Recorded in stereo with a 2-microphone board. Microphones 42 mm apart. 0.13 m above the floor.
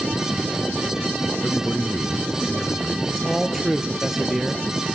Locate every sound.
1.4 s a man speaking: 30° left (ahead or behind), 1.3 m
3.0 s a man speaking: 5° right (ahead or behind), 2 m